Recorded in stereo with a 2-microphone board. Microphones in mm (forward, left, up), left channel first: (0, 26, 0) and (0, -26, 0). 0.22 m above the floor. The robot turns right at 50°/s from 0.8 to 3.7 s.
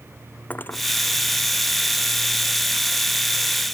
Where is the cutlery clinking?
35° left (ahead or behind).